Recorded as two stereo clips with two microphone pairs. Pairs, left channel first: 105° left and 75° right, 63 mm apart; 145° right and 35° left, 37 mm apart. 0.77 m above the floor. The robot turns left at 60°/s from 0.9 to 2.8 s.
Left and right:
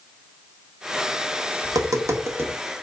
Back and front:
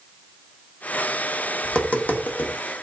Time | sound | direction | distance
1.6 | tapping | 80° right | 1.8 m